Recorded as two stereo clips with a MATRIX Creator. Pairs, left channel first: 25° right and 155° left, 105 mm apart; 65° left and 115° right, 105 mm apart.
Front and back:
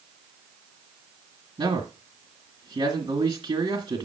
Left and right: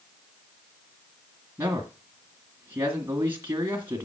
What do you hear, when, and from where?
1.6 s a man speaking: straight behind, 2.0 m